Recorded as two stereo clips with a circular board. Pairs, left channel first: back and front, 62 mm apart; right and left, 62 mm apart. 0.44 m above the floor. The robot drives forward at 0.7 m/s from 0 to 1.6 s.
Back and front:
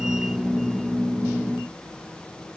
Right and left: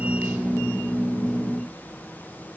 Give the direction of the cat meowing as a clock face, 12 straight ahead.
No cat meowing in this recording.